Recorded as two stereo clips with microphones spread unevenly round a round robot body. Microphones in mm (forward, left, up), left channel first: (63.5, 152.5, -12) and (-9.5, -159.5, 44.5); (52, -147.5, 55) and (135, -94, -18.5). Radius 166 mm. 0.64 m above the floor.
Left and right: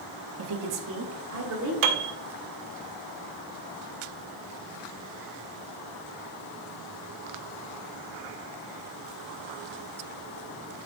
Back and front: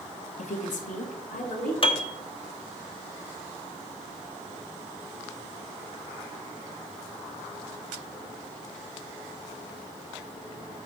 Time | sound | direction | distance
0.4 | a woman speaking | 120° right | 1.2 m
1.8 | a piano | 85° right | 1.1 m